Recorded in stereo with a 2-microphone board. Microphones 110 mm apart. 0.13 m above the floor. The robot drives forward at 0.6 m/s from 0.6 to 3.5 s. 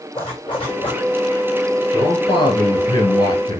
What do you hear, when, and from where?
0.1 s a zipper: 50° left (ahead or behind), 3.5 m; by 1.0 s 45° left (ahead or behind), 3.5 m
1.9 s a man speaking: 45° left (ahead or behind), 2.5 m; by 3.6 s 35° left (ahead or behind), 2.5 m